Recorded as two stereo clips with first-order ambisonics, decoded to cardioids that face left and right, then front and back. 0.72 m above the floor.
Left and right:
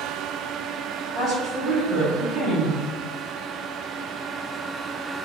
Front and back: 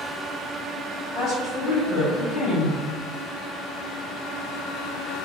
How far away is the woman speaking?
About 1.1 m.